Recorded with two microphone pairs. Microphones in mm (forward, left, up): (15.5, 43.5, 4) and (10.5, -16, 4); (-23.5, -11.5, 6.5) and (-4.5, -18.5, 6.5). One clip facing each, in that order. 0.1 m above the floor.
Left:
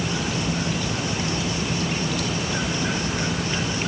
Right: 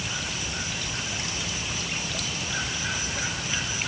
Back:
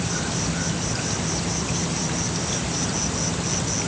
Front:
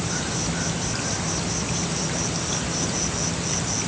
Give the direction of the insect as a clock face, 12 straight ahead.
10 o'clock.